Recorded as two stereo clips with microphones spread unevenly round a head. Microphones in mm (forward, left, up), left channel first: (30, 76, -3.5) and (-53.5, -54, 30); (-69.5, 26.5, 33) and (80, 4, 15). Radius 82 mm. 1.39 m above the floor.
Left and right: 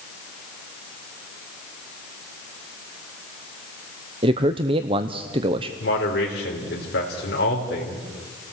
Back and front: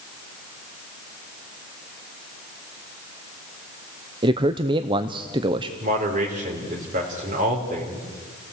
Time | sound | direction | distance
4.2 | a man speaking | 60° right | 0.8 m
5.8 | a man speaking | 30° left | 3.5 m